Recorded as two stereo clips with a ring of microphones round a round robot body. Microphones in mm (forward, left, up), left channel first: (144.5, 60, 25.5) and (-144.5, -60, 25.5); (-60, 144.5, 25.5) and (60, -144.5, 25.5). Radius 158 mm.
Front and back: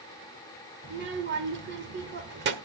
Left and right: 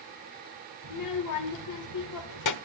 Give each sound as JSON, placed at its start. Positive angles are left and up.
{"t": 0.8, "sound": "a child speaking", "azimuth_deg": 145, "distance_m": 1.4}